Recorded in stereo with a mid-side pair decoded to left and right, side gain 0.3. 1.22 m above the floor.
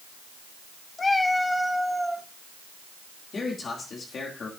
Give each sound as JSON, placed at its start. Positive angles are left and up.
{"t": 1.0, "sound": "a cat meowing", "azimuth_deg": 45, "distance_m": 1.2}
{"t": 3.3, "sound": "a man speaking", "azimuth_deg": 60, "distance_m": 2.5}